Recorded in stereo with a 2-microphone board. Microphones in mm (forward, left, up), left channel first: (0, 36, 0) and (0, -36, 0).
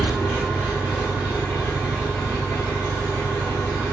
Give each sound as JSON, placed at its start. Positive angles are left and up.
{"t": 0.0, "sound": "an engine running", "side_deg": 0, "distance_m": 1.6}